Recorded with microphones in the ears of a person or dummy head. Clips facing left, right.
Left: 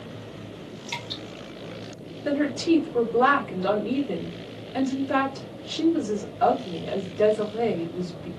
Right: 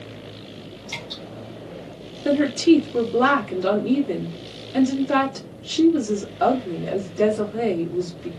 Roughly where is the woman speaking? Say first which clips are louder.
Right 6 dB; right.